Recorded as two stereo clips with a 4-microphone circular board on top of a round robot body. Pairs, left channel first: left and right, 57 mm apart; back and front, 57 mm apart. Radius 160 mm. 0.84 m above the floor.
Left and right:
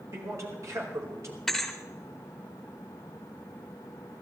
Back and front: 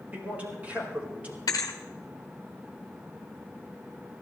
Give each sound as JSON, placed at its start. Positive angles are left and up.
{"t": 0.1, "sound": "a man speaking", "azimuth_deg": -65, "distance_m": 4.5}
{"t": 1.5, "sound": "a thud", "azimuth_deg": 175, "distance_m": 0.9}